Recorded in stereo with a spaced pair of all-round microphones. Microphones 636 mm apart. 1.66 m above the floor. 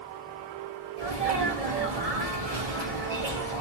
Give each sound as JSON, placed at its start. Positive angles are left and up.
{"t": 1.0, "sound": "a sneeze", "side_deg": -65, "distance_m": 1.2}